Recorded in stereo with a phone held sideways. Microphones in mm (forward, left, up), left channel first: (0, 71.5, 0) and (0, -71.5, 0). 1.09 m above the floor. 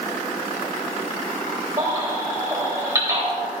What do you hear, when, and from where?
1.8 s a baby crying: 25° right (ahead or behind), 3.5 m